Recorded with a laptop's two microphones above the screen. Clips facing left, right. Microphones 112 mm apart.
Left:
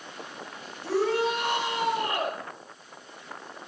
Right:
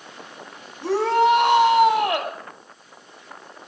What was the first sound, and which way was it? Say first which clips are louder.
A shout: right 7 dB; 75° right (ahead or behind).